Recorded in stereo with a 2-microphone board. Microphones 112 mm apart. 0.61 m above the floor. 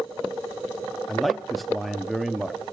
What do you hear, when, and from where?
1.1 s a man speaking: centre (ahead or behind), 0.6 m